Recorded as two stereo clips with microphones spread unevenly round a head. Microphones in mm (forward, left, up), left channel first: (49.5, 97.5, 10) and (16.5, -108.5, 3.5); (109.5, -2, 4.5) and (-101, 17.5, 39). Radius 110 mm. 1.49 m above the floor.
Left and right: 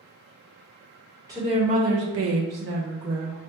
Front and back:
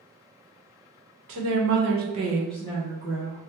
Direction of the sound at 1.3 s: 175° right.